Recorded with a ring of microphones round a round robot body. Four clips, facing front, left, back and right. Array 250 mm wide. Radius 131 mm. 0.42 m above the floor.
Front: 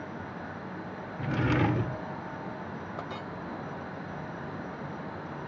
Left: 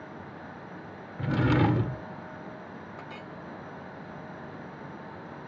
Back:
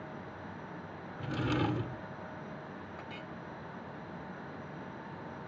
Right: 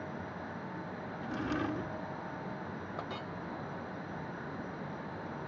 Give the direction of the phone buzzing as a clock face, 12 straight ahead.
I don't hear a phone buzzing.